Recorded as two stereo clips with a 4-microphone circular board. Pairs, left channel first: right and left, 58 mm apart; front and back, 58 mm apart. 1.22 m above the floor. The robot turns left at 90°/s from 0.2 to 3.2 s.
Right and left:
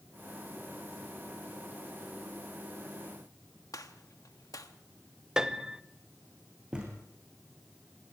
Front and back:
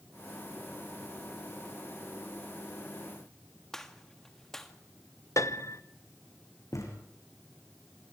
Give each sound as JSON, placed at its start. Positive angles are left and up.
{"t": 3.7, "sound": "a gunshot", "azimuth_deg": -80, "distance_m": 1.4}
{"t": 5.4, "sound": "a piano", "azimuth_deg": 10, "distance_m": 0.8}
{"t": 6.7, "sound": "a thud", "azimuth_deg": 20, "distance_m": 4.5}